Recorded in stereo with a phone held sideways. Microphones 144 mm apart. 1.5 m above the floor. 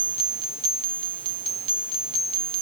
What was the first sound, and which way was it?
Only background noise.